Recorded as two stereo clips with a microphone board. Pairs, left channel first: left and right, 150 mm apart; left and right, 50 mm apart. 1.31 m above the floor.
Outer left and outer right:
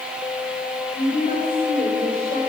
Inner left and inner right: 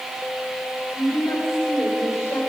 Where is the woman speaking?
65° left (ahead or behind), 4 m.